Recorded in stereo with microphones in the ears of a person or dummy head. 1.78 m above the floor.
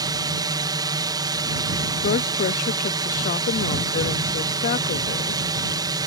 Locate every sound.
0.0 s a drone: 20° right (ahead or behind)
2.0 s a woman speaking: 40° left (ahead or behind)